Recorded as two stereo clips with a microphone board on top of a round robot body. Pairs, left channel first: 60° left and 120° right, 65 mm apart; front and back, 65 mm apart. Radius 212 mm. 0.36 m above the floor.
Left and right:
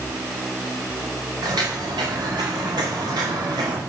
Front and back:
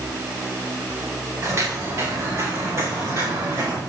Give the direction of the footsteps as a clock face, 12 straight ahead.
4 o'clock.